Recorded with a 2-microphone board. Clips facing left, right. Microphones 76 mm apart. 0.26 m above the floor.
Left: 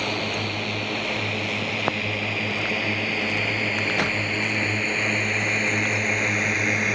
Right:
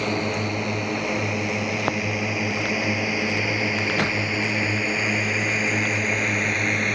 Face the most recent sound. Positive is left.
turn(degrees=5)  # may be behind; listen again after turning